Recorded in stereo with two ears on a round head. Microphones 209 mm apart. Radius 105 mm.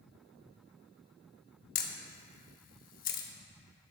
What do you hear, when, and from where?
1.8 s a camera shutter: 40° left (ahead or behind), 0.7 m